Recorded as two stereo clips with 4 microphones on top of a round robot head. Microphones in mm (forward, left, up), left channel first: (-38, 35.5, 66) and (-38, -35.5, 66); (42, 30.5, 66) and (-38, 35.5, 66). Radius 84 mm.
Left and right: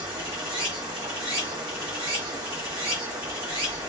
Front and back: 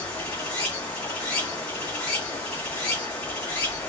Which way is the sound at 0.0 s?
75° right.